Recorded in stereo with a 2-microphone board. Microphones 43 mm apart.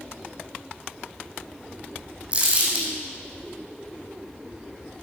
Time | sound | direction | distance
2.3 | crumpling | 35° right (ahead or behind) | 5 m